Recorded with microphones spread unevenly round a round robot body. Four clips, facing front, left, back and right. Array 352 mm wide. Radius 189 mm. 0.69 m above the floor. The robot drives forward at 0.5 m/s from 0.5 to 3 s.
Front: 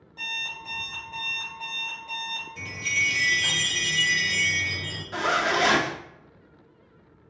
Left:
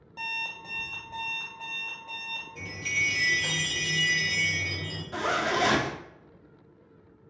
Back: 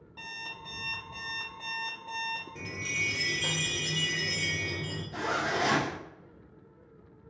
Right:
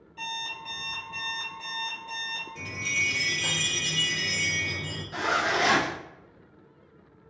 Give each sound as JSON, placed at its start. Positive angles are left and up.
{"t": 0.2, "sound": "an alarm clock", "azimuth_deg": 110, "distance_m": 0.5}
{"t": 2.5, "sound": "a chime", "azimuth_deg": 180, "distance_m": 2.0}
{"t": 5.1, "sound": "a zipper", "azimuth_deg": 100, "distance_m": 0.7}